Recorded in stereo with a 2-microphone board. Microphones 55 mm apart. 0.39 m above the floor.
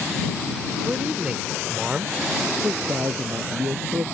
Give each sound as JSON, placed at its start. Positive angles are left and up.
{"t": 0.8, "sound": "a man speaking", "side_deg": -20}
{"t": 2.6, "sound": "a man speaking", "side_deg": -55}